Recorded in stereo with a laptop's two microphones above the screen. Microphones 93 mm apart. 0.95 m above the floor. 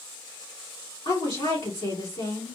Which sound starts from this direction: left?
A woman speaking, at 1.1 s.